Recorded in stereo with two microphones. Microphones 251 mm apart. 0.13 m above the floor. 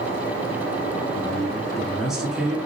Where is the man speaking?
Centre (ahead or behind), 1.2 m.